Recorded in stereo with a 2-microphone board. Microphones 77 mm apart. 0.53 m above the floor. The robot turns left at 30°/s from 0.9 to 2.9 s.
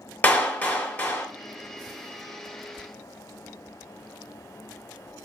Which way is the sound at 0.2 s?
25° left (ahead or behind).